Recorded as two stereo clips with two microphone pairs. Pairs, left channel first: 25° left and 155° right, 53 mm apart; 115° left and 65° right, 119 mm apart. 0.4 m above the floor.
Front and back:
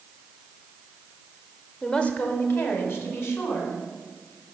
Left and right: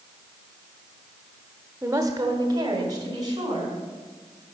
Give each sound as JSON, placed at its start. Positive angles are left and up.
{"t": 1.8, "sound": "a woman speaking", "azimuth_deg": -40, "distance_m": 1.0}